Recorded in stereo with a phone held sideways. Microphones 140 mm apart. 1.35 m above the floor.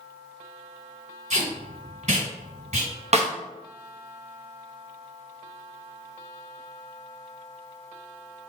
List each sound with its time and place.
1.3 s tape being pulled: 55° right (ahead or behind), 2.0 m
3.1 s a snare drum: 50° right (ahead or behind), 0.7 m